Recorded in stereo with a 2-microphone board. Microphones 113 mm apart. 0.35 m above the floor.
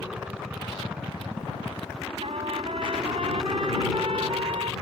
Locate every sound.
0.0 s a helicopter: 5° right (ahead or behind)
2.2 s a trumpet: 65° right (ahead or behind)